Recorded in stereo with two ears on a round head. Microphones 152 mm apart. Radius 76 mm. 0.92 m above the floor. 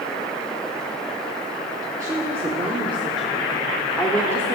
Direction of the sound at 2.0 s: 20° right (ahead or behind).